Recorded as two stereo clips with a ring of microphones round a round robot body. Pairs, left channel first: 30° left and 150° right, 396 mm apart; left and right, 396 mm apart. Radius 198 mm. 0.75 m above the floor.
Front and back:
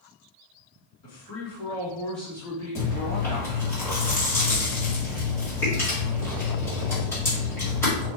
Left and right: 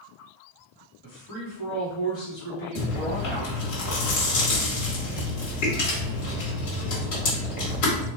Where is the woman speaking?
70° left, 1.3 m; by 3.8 s straight behind, 1.5 m.